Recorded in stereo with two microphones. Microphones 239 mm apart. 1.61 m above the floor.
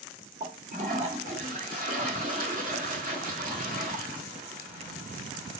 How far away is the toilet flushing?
About 1.2 m.